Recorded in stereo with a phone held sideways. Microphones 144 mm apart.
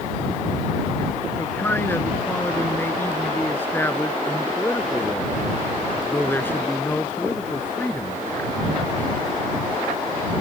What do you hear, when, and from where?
1.4 s a man speaking: 15° left (ahead or behind)